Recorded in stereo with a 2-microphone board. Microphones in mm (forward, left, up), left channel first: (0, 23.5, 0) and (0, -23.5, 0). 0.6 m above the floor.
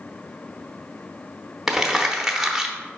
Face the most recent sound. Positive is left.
turn(degrees=-5)  # may be behind; listen again after turning